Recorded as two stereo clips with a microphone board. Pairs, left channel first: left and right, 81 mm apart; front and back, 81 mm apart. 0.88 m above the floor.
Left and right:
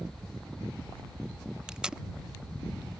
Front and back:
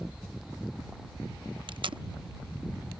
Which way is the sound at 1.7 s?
170° right.